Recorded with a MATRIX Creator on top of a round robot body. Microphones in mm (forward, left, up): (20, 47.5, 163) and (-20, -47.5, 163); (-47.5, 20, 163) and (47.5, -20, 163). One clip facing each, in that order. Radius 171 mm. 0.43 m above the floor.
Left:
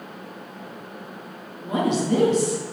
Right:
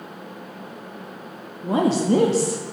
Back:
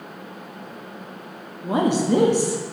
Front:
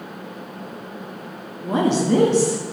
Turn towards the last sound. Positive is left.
turn(degrees=-135)